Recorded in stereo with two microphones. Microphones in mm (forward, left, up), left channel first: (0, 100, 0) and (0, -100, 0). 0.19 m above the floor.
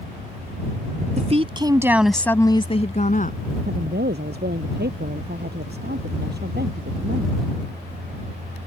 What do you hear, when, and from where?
1.2 s a woman speaking: 35° right (ahead or behind); by 3.4 s 45° left (ahead or behind)
3.6 s a woman speaking: 55° right (ahead or behind)